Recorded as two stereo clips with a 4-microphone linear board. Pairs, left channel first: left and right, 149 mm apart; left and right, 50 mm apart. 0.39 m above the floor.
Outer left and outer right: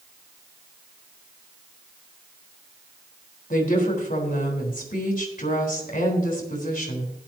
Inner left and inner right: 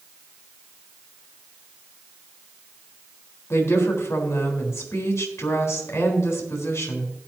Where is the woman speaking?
70° left (ahead or behind), 4 m.